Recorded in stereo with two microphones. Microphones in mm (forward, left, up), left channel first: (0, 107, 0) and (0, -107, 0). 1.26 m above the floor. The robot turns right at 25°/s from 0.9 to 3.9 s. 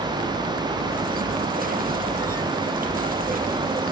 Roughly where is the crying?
I don't hear crying.